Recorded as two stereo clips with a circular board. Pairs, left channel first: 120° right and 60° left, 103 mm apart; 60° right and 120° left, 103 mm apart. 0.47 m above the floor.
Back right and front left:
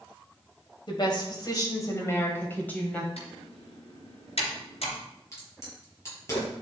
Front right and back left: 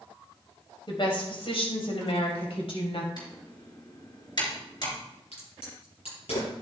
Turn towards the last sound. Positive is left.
turn(degrees=-60)